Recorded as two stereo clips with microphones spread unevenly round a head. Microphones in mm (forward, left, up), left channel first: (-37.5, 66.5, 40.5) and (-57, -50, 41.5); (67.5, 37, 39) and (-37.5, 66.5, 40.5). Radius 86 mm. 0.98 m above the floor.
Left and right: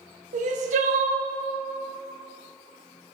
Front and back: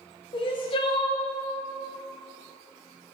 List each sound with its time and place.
0.3 s crying: 70° right, 0.8 m